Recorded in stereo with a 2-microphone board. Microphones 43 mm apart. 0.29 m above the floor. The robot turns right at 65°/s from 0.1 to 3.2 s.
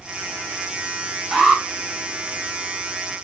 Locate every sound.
1.3 s an alarm: 10° right (ahead or behind), 1.2 m; by 1.6 s 20° right (ahead or behind), 1.2 m